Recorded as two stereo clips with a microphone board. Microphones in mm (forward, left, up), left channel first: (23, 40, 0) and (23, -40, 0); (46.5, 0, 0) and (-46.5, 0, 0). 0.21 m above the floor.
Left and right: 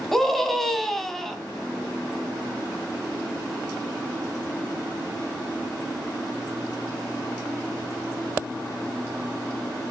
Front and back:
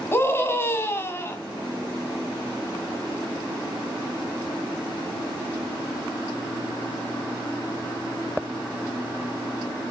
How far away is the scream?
About 1.7 m.